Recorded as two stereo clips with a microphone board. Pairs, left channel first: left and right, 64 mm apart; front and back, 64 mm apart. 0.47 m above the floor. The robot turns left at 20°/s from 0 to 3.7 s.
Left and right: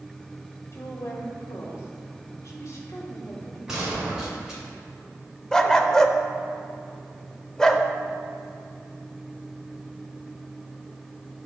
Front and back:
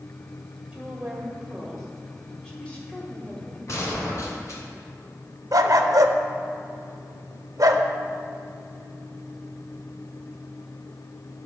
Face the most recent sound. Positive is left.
turn(degrees=170)